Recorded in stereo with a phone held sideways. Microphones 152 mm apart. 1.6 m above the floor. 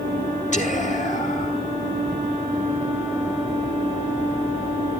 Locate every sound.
0.5 s whispering: 50° left (ahead or behind), 1.6 m